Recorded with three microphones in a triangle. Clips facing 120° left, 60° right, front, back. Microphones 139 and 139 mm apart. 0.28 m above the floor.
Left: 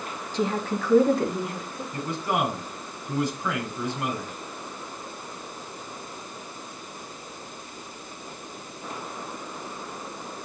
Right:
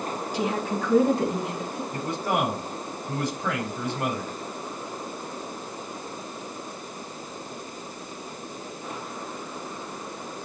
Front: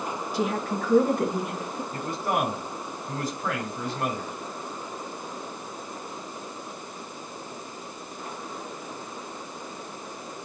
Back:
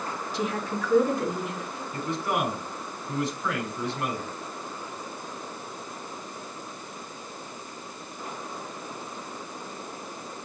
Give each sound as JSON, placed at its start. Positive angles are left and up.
{"t": 0.3, "sound": "a woman speaking", "azimuth_deg": 15, "distance_m": 2.0}
{"t": 1.9, "sound": "a man speaking", "azimuth_deg": -40, "distance_m": 5.5}